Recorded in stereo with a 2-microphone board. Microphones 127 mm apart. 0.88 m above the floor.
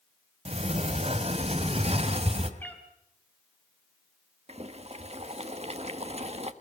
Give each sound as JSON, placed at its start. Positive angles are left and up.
{"t": 0.5, "sound": "a sliding door", "side_deg": -55, "distance_m": 2.0}
{"t": 2.6, "sound": "a cat meowing", "side_deg": 15, "distance_m": 3.5}
{"t": 4.5, "sound": "boiling", "side_deg": -55, "distance_m": 1.4}